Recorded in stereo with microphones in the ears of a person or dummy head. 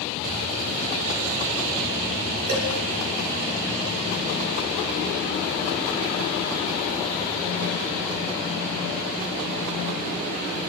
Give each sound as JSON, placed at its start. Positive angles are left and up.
{"t": 2.5, "sound": "dishes clattering", "side_deg": -40, "distance_m": 3.5}